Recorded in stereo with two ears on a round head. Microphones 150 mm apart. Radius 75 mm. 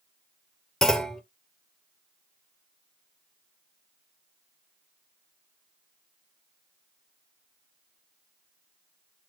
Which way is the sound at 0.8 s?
5° left (ahead or behind).